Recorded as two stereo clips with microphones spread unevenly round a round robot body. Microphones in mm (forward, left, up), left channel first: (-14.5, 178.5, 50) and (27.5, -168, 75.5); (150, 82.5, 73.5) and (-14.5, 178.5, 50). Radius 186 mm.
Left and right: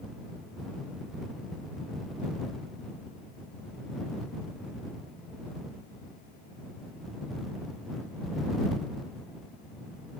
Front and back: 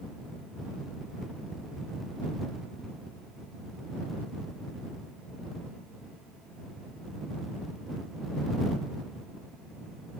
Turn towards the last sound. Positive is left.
No sound to turn to.